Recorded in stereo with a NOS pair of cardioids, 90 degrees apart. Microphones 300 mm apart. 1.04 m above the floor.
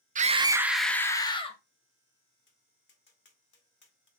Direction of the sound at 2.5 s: 40° left.